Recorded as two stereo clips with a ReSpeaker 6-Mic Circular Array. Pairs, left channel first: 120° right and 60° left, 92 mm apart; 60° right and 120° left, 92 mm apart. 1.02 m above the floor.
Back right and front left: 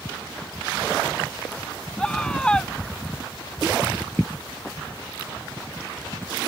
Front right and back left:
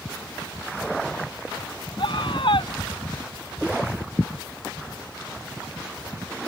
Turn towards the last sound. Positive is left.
turn(degrees=-40)